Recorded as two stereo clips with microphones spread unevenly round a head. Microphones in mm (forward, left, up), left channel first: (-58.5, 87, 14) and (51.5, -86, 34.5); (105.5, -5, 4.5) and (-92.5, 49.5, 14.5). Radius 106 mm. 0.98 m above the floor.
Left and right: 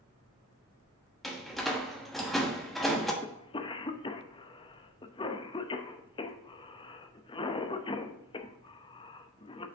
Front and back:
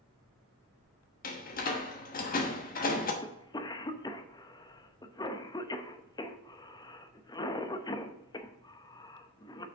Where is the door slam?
35° left, 1.1 m.